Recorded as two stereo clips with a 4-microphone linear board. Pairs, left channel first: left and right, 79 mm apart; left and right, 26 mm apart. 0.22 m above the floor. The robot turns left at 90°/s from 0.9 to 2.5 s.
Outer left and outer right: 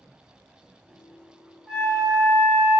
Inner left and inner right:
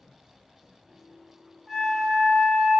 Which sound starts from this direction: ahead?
A flute, at 1.7 s.